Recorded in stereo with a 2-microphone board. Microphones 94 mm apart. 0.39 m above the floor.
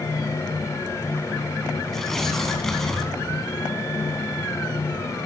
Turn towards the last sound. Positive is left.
turn(degrees=5)  # may be behind; listen again after turning